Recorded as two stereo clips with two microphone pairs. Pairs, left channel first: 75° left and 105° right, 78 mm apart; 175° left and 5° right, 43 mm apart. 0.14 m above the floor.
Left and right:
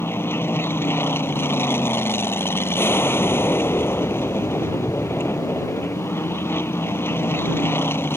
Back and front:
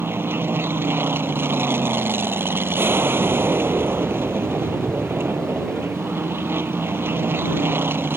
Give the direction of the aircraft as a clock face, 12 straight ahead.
11 o'clock.